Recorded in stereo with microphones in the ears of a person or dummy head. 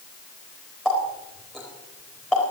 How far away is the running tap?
About 5 m.